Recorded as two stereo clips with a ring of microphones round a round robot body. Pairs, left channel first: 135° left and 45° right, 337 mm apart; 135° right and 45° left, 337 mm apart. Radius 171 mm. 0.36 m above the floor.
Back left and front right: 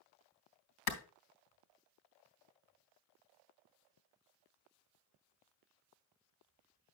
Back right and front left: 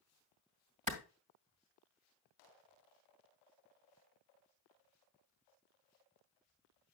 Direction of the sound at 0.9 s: 110° left.